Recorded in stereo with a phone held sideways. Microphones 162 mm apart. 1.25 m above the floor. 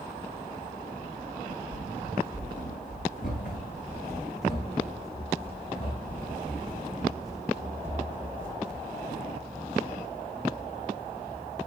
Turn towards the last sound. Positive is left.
turn(degrees=5)  # may be behind; listen again after turning